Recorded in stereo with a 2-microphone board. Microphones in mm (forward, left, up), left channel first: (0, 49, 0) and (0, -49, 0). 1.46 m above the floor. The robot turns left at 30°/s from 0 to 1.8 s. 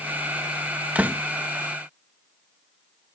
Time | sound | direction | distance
0.9 | a door slam | 15° right (ahead or behind) | ?